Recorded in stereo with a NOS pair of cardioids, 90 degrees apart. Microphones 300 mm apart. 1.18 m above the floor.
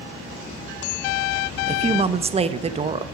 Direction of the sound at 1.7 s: 20° right.